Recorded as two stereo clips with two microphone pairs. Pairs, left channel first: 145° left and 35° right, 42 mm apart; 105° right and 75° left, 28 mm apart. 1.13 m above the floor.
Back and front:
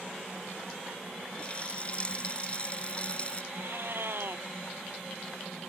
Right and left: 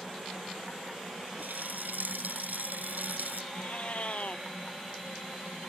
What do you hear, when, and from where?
1.4 s a running tap: 85° left
3.5 s a cat meowing: 60° right